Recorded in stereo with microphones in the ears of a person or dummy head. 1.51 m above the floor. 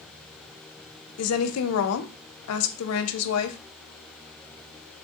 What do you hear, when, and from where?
1.2 s a woman speaking: 70° left (ahead or behind), 0.6 m